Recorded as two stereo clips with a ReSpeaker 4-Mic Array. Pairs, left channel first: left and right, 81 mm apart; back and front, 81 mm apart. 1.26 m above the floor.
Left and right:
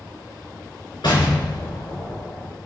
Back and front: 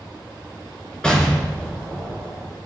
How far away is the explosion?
About 3 m.